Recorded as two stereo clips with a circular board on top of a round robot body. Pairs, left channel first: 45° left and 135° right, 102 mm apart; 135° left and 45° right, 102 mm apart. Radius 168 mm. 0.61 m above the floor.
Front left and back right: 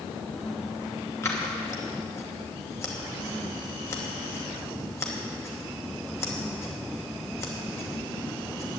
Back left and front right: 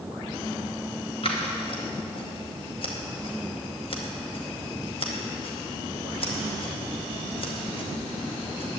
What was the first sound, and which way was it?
Scissors, 110° left.